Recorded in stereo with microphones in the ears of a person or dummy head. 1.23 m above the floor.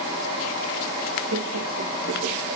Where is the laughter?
80° right, 1.6 m; by 2.6 s 35° right (ahead or behind), 1.9 m.